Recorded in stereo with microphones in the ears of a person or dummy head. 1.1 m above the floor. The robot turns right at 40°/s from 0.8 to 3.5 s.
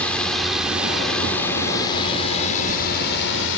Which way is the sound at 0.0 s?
15° left (ahead or behind).